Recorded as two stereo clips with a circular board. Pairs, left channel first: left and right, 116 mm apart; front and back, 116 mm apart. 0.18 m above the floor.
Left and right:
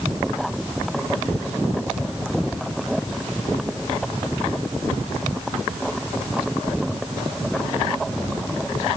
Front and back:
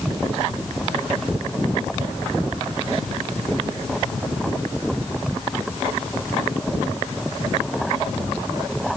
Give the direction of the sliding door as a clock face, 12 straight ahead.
No sliding door in this recording.